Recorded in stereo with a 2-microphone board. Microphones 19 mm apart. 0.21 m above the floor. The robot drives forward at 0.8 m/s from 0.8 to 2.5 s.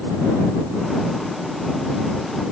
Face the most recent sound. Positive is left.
No sound to turn to.